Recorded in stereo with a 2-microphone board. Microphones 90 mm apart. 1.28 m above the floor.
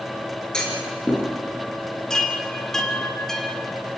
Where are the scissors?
No scissors in this recording.